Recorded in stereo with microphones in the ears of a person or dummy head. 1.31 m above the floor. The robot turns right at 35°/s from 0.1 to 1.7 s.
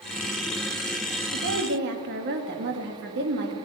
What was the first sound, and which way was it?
A woman speaking, 70° right (ahead or behind).